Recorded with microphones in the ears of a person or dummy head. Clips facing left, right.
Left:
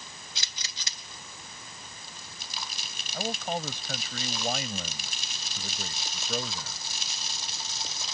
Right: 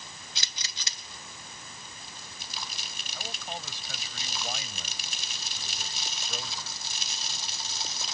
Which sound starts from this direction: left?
A man speaking, at 3.1 s.